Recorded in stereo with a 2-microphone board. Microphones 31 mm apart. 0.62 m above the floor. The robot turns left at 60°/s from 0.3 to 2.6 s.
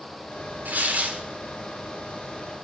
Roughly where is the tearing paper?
Right.